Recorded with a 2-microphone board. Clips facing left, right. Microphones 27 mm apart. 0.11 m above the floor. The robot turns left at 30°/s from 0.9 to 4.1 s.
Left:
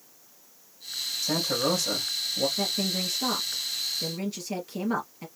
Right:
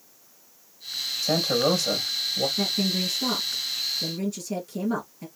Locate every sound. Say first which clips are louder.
1.2 s a man speaking: right 4 dB; 150° right, 3 m; by 2.5 s 175° left, 3 m
2.6 s a woman speaking: right 3 dB; 170° right, 2 m; by 5.3 s 145° left, 2 m